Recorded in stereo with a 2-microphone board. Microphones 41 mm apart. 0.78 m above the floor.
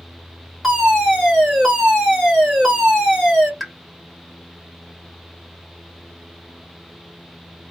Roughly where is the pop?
Centre.